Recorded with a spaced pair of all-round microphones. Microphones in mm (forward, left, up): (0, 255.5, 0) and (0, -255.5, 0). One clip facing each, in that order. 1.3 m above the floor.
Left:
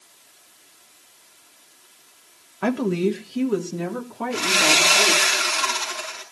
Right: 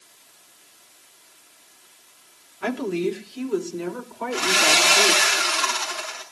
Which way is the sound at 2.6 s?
65° left (ahead or behind).